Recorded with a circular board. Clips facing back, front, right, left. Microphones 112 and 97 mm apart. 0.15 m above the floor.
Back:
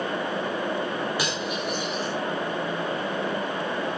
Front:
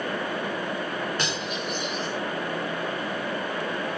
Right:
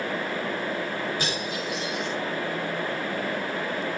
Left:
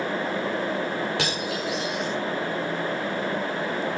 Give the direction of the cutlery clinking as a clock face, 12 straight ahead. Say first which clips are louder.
Back 2 dB, left 2 dB; 9 o'clock.